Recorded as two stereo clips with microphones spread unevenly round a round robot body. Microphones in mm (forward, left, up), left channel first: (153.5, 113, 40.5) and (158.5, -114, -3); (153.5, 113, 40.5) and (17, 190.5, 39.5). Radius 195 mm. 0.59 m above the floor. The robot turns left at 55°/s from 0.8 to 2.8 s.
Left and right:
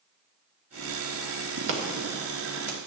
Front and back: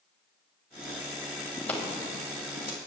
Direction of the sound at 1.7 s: 85° right.